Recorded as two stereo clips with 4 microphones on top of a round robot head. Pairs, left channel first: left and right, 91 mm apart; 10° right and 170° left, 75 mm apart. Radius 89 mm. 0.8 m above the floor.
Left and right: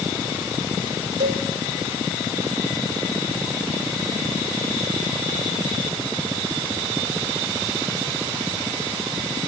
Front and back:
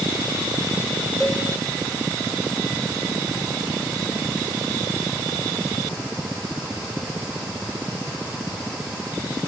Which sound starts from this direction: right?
A cowbell, at 1.2 s.